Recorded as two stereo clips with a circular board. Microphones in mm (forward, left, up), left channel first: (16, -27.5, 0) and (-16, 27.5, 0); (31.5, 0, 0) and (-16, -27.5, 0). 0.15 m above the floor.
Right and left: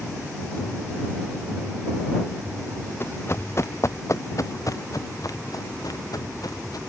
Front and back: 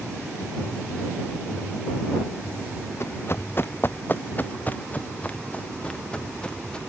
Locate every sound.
3.0 s running footsteps: 10° right; by 6.8 s 45° right